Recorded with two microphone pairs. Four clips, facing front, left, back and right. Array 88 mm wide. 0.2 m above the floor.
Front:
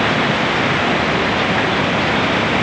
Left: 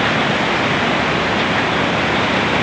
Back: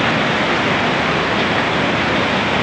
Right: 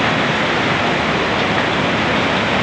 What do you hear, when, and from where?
Only background noise.